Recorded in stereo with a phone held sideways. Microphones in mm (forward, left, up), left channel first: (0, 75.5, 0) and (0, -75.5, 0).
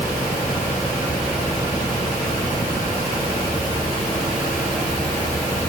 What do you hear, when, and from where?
Only background noise.